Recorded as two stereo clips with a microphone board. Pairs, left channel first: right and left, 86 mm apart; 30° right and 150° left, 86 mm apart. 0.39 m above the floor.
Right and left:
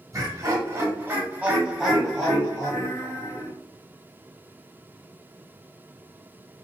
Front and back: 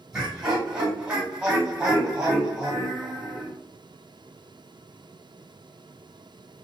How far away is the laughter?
About 1.8 m.